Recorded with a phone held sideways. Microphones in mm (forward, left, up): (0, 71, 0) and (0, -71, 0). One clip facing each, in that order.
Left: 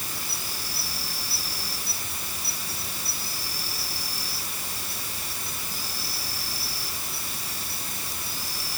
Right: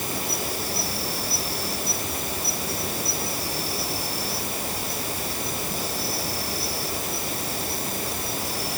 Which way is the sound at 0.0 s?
60° right (ahead or behind).